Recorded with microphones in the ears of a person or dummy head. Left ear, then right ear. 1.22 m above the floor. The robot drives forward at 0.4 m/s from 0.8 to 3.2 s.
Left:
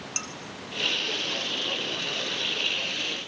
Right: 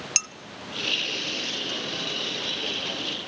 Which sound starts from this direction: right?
Dishes clattering, at 0.2 s.